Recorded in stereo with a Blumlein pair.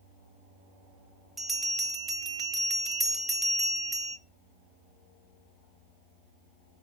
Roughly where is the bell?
Ahead.